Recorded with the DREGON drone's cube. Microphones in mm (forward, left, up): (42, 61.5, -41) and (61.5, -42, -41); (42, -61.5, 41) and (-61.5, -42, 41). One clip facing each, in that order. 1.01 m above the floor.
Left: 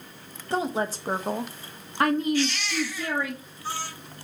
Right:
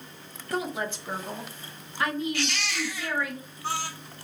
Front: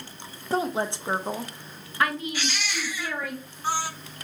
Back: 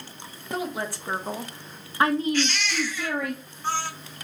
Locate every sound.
0.5 s a woman speaking: 40° left, 0.8 m; by 3.3 s 155° left, 1.0 m
2.3 s a baby crying: 90° right, 1.1 m